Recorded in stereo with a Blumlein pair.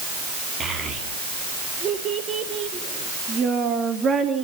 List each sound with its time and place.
0.6 s a child speaking: 25° right, 2.5 m